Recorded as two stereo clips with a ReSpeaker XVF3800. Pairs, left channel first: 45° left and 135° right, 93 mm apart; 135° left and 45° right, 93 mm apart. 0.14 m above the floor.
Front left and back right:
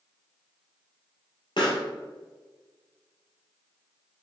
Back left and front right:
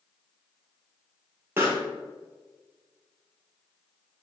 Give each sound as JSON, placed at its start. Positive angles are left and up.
{"t": 1.6, "sound": "a pop", "azimuth_deg": 20, "distance_m": 1.2}